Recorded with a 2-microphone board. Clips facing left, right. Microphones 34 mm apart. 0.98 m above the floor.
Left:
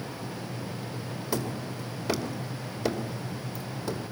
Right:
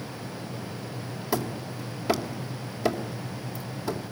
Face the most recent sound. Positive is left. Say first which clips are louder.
# right 2 dB
turn(degrees=-10)  # may be behind; listen again after turning